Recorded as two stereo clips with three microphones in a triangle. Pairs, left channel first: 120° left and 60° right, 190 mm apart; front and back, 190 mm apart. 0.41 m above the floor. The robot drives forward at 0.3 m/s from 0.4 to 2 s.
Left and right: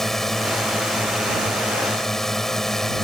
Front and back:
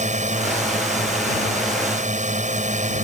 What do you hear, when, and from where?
0.0 s a drone: 150° right; by 3.0 s 155° right